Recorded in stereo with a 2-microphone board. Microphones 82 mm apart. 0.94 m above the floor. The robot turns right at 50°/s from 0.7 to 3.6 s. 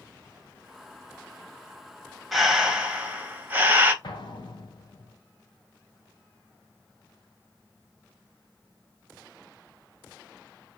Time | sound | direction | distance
2.3 | breathing | centre (ahead or behind) | 0.9 m
4.0 | an explosion | 65° left (ahead or behind) | 1.4 m